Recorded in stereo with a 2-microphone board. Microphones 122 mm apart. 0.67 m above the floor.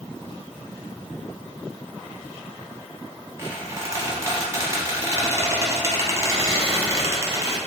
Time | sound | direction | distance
3.4 | a squeak | 25° right (ahead or behind) | 0.7 m